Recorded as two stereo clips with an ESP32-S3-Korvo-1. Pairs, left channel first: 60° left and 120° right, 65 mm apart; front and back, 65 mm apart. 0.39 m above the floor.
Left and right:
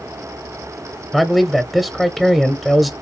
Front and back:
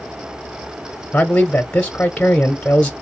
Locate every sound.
1.1 s a man speaking: 35° right, 0.9 m